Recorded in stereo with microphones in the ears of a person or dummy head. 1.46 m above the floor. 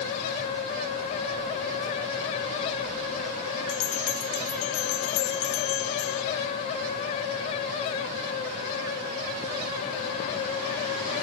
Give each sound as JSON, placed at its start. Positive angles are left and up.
{"t": 3.7, "sound": "a bell", "side_deg": 75}